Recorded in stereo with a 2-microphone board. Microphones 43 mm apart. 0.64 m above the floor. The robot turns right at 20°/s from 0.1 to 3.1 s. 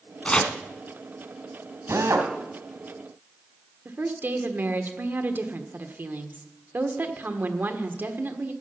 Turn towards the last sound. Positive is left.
turn(degrees=-50)  # may be behind; listen again after turning